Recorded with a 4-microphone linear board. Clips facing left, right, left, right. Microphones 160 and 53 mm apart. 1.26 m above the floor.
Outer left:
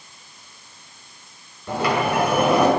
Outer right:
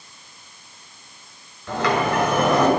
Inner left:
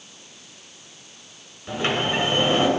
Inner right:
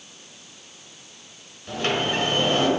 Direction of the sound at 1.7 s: 10° left (ahead or behind).